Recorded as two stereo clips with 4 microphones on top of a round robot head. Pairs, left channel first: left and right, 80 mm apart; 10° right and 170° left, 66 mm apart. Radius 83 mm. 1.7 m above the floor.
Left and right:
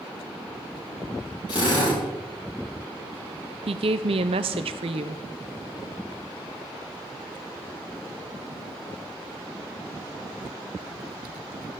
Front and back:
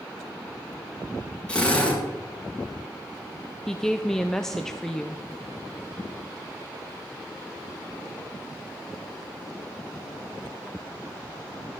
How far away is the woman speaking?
About 0.6 m.